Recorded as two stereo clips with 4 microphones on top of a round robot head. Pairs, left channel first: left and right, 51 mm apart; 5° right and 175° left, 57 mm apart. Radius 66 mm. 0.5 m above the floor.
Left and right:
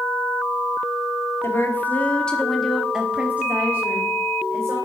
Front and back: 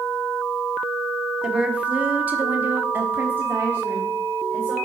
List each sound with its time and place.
1.4 s a woman speaking: 105° left, 1.7 m; by 4.8 s 125° right, 2.5 m